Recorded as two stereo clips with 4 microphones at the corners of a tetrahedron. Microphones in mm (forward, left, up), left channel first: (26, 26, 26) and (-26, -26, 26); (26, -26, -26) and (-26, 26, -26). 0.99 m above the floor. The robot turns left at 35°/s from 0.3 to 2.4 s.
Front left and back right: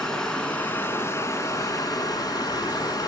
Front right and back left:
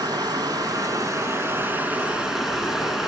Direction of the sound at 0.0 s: 120° left.